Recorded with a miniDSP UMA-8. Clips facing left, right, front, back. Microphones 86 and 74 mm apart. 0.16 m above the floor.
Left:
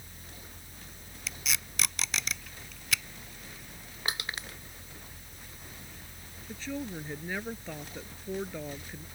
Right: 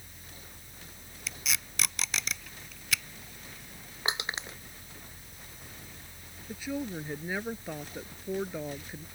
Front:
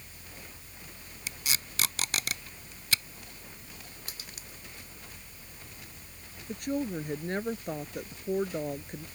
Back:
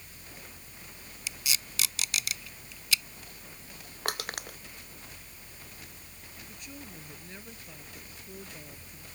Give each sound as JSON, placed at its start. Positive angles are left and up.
{"t": 1.3, "sound": "tape being pulled", "azimuth_deg": 0}
{"t": 4.0, "sound": "crushing", "azimuth_deg": -160}
{"t": 6.5, "sound": "a woman speaking", "azimuth_deg": -15}